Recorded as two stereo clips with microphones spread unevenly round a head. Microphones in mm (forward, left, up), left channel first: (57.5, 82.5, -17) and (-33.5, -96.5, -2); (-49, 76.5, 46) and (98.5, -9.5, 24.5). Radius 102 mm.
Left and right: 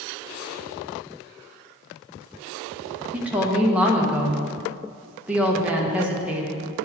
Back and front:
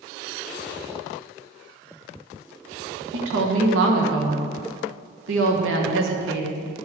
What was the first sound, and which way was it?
A woman speaking, 35° right.